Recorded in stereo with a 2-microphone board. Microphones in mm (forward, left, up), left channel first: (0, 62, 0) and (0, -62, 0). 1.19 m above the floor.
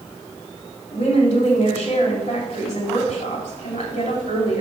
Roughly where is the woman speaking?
Left.